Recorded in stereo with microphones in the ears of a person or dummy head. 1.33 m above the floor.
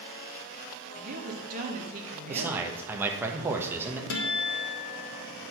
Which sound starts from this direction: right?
A woman speaking, at 0.9 s.